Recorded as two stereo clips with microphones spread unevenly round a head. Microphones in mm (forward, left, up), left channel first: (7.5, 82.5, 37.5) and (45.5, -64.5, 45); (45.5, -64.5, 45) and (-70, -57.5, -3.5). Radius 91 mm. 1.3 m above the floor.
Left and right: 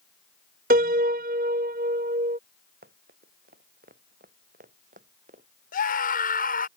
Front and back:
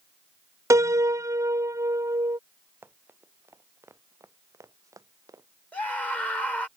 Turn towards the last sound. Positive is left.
turn(degrees=75)